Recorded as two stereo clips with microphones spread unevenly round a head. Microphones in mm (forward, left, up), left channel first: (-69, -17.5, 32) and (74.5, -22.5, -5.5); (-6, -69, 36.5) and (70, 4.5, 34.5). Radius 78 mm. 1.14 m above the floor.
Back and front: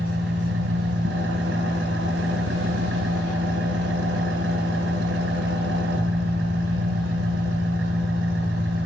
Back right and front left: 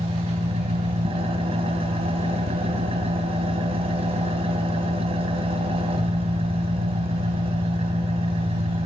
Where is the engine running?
15° left, 4 m.